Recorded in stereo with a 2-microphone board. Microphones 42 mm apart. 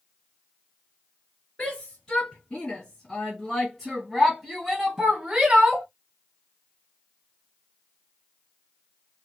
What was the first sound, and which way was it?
A shout, 25° left (ahead or behind).